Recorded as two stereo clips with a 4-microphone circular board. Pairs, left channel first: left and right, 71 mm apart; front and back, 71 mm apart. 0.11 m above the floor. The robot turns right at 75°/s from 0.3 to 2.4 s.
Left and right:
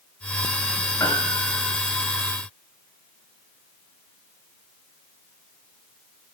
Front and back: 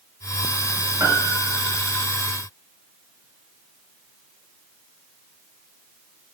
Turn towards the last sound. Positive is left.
turn(degrees=-120)